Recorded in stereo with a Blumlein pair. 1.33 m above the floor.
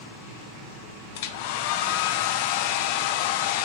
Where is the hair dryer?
50° left, 0.7 m.